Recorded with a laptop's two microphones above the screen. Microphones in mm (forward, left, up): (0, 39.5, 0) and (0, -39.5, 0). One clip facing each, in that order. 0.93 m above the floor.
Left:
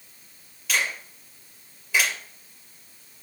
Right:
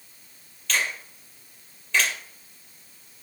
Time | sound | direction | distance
0.7 | a finger snap | 10° left (ahead or behind) | 3 m